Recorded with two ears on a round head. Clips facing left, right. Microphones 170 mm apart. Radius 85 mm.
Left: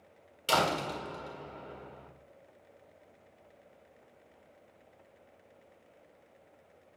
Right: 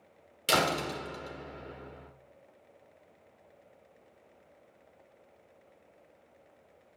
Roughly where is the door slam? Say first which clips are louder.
Even; right.